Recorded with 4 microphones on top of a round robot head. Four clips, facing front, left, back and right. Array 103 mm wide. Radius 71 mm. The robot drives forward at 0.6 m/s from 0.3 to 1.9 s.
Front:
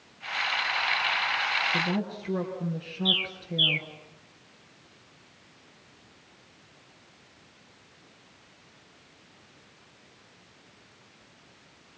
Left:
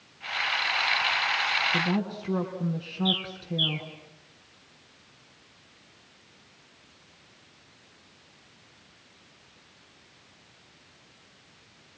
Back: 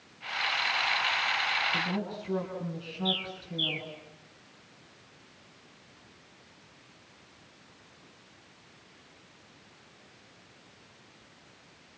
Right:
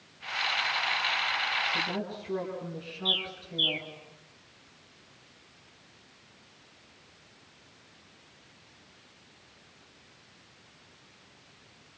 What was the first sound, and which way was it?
A woman speaking, 75° left.